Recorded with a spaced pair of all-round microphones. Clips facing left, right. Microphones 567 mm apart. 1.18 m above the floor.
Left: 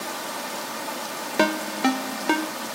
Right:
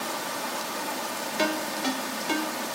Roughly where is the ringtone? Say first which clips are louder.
Left 6 dB; left.